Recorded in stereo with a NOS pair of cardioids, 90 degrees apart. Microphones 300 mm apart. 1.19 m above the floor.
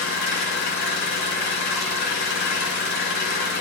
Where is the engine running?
70° left, 1.9 m.